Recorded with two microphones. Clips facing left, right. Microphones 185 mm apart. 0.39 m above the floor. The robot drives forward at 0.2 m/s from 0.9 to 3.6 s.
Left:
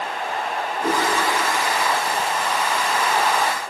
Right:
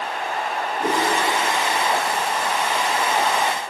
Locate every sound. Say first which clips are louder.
0.8 s a whoosh: even; 20° right (ahead or behind), 8 m; by 1.1 s 15° right (ahead or behind), 8 m